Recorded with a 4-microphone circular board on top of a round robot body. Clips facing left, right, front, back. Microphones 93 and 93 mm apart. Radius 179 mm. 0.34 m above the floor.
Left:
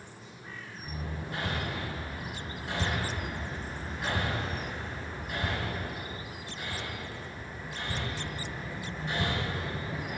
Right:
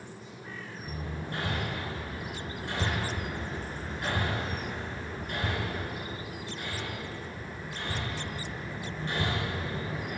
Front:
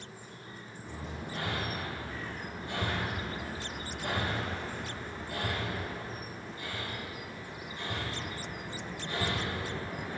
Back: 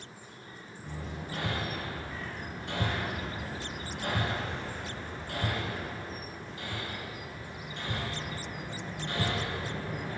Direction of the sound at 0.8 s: 170° left.